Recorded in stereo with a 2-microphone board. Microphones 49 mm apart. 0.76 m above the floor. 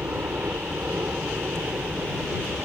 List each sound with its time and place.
0.0 s a helicopter: 40° right (ahead or behind)